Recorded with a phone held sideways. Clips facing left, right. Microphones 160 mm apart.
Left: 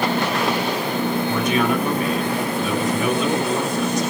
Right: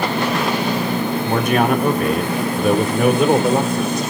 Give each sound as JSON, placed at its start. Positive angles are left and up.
{"t": 1.2, "sound": "a man speaking", "side_deg": -60, "distance_m": 3.0}